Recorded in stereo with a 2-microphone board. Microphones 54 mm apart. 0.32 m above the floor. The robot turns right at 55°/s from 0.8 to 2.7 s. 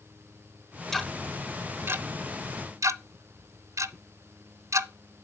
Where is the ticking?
5° left (ahead or behind), 0.6 m; by 4.9 s 75° right (ahead or behind), 0.6 m.